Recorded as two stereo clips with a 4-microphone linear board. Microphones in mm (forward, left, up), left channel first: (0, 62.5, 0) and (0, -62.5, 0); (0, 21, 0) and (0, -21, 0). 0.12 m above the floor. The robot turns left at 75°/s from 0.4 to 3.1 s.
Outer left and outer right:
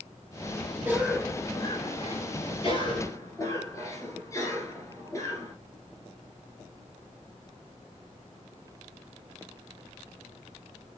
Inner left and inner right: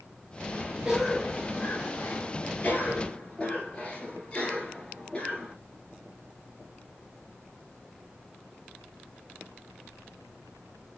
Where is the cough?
160° right, 1.7 m; by 5.5 s 35° left, 1.7 m.